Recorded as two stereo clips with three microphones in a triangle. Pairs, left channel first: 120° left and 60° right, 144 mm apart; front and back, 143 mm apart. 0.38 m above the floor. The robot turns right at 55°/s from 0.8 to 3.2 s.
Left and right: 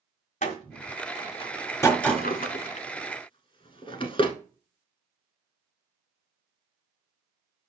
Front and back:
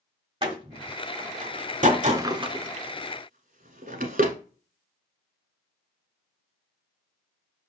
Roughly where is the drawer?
Left.